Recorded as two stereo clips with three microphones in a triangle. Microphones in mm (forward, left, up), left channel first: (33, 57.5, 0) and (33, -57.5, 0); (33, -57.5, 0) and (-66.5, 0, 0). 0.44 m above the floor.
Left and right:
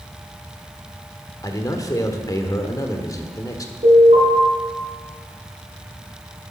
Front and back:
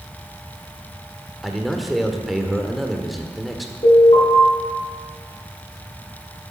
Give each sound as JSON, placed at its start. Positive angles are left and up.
{"t": 1.4, "sound": "a man speaking", "azimuth_deg": 60, "distance_m": 1.4}
{"t": 3.8, "sound": "an alarm", "azimuth_deg": -65, "distance_m": 4.5}